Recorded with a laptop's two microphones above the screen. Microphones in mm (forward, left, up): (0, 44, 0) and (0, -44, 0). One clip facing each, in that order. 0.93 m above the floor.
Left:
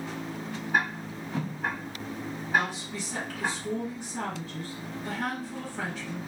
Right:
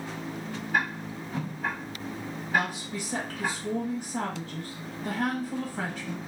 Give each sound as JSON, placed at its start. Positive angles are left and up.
{"t": 0.7, "sound": "ticking", "side_deg": 20, "distance_m": 1.7}
{"t": 2.5, "sound": "a woman speaking", "side_deg": -45, "distance_m": 1.4}